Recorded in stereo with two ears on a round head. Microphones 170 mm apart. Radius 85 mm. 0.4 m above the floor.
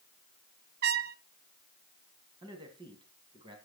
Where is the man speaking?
25° right (ahead or behind), 2.5 m.